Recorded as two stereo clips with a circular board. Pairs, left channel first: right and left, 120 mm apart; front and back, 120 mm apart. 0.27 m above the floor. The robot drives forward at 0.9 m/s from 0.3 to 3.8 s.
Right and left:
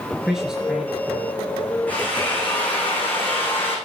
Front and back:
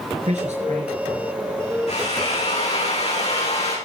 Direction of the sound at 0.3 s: 175° left.